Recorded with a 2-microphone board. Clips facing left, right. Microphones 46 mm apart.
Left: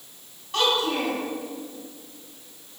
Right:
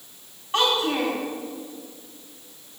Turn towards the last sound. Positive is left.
turn(degrees=-25)  # may be behind; listen again after turning